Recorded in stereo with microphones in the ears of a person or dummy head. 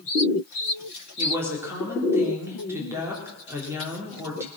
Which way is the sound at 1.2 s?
15° right (ahead or behind).